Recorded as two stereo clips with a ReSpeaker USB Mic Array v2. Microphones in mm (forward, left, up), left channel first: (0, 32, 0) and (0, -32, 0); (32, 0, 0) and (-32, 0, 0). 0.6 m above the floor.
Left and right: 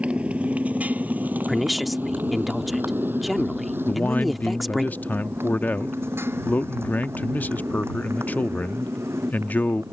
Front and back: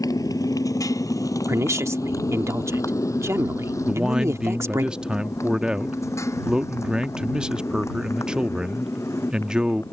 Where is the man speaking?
120° left.